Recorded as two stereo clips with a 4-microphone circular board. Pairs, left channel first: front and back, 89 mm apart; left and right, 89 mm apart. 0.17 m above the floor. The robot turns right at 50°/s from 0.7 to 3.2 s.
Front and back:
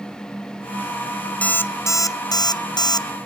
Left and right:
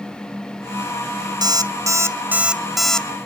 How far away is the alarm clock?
About 0.9 m.